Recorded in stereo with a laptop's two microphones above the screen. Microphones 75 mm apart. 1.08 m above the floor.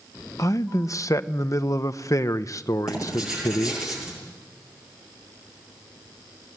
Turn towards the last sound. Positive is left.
turn(degrees=-10)  # may be behind; listen again after turning